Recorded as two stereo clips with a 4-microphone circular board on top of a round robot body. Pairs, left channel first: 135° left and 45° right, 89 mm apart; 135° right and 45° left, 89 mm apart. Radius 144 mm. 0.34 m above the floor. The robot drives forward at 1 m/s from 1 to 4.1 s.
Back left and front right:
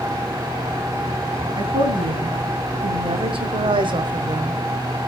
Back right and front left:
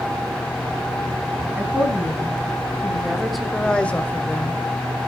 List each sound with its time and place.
1.6 s a woman speaking: 25° right, 3.5 m; by 4.6 s 70° right, 1.7 m